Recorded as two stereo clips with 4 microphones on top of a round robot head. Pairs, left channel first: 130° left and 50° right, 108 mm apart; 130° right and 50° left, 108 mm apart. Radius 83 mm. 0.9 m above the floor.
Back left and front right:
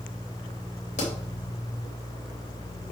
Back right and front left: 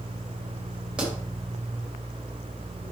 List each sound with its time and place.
1.0 s a pop: 130° left, 2.5 m